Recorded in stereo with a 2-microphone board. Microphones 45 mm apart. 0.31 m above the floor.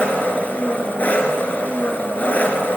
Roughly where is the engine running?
Left.